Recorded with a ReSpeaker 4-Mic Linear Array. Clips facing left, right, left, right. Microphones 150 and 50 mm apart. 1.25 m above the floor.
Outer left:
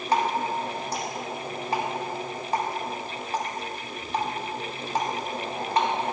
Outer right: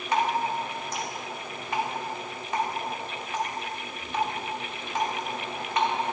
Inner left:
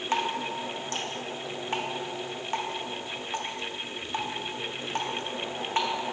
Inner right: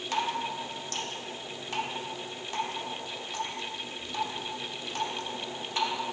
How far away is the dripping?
About 0.9 m.